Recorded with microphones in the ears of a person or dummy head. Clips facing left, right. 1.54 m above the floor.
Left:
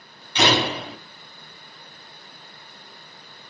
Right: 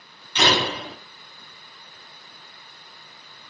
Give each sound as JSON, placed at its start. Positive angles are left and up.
{"t": 0.3, "sound": "a door slam", "side_deg": 15, "distance_m": 2.5}